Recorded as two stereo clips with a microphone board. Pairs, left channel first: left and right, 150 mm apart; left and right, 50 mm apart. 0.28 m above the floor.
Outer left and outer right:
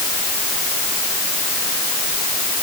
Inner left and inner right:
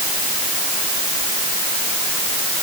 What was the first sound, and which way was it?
Only background noise.